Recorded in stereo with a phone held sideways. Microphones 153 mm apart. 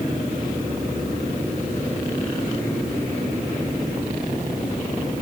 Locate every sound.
Only background noise.